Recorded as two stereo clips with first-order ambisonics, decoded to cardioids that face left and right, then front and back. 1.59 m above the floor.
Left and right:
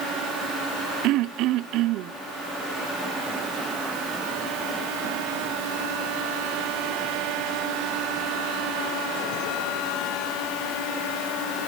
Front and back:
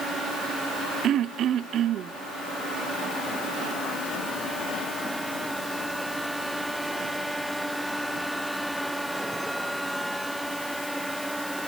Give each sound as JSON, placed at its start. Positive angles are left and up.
{"t": 1.0, "sound": "throat clearing", "azimuth_deg": -125, "distance_m": 0.5}